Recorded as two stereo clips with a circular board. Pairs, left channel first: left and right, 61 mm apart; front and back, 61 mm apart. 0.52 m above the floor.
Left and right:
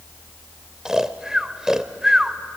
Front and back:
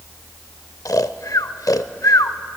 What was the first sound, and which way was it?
Snoring, 10° right.